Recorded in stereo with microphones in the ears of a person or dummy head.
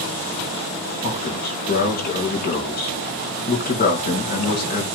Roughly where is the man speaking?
Left.